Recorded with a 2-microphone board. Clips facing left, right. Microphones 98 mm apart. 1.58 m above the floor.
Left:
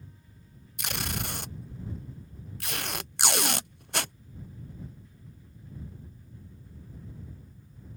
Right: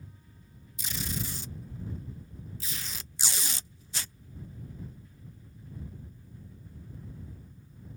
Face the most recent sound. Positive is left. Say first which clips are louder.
# left 2 dB
turn(degrees=65)  # may be behind; listen again after turning